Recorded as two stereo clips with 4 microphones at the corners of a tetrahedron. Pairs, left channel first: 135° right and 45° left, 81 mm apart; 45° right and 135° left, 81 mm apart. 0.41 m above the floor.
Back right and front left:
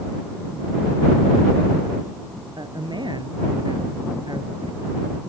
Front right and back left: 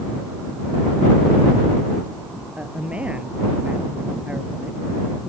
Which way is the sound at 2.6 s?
60° left.